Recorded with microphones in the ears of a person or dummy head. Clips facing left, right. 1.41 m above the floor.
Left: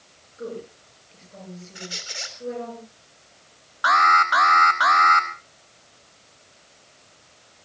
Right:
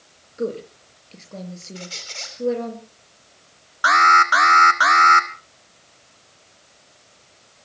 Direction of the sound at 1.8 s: 10° left (ahead or behind).